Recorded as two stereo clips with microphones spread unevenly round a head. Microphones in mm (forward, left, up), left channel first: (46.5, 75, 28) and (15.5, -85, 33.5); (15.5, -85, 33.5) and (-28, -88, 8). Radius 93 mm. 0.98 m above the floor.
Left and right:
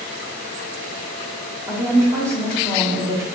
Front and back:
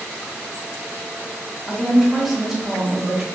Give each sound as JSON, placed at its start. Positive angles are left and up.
{"t": 1.7, "sound": "a woman speaking", "azimuth_deg": -170, "distance_m": 0.7}